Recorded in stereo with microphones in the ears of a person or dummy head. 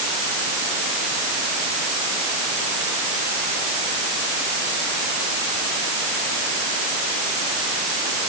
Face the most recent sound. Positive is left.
No sound to turn to.